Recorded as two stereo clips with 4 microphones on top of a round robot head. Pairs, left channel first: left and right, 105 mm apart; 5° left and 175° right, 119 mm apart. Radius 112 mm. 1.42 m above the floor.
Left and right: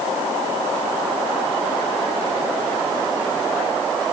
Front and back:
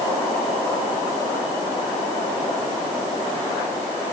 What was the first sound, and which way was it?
Only background noise.